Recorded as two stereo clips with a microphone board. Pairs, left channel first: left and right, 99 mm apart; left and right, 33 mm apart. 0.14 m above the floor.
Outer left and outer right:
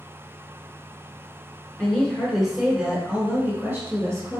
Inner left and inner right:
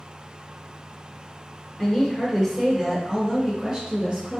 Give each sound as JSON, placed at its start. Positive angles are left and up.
{"t": 1.8, "sound": "a woman speaking", "side_deg": 10, "distance_m": 1.6}